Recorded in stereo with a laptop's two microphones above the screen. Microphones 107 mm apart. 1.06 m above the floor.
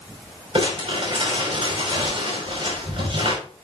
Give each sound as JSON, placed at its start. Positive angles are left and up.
{"t": 0.6, "sound": "crumpling", "side_deg": -65, "distance_m": 6.0}